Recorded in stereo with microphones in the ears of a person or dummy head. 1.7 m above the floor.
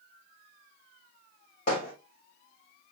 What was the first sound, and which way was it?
Hammering, 40° left (ahead or behind).